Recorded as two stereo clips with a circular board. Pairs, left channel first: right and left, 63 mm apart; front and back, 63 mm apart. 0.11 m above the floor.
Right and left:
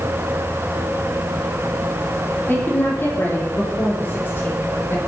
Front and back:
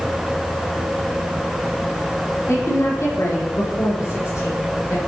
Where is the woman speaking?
35° right, 4.5 m.